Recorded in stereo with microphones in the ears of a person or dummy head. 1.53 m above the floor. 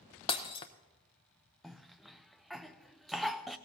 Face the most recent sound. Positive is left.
turn(degrees=-5)  # may be behind; listen again after turning